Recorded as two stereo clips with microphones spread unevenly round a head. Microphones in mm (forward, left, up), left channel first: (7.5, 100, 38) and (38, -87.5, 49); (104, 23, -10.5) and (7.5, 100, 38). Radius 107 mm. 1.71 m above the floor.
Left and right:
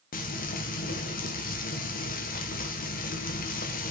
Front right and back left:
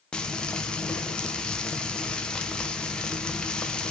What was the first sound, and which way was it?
Frying, 55° left.